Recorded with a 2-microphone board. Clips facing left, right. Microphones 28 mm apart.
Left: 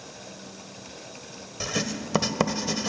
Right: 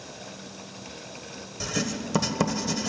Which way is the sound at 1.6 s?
20° left (ahead or behind).